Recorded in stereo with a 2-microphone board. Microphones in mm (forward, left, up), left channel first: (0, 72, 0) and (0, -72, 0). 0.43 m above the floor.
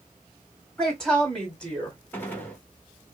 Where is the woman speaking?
5° left (ahead or behind), 3 m; by 2.0 s 10° left (ahead or behind), 3.5 m.